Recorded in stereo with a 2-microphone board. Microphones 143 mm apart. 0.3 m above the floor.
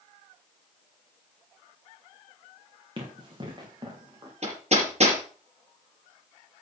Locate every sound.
3.0 s running footsteps: 35° right (ahead or behind), 5.5 m; by 4.3 s 30° right (ahead or behind), 6.5 m
4.4 s hammering: 50° right (ahead or behind), 4.5 m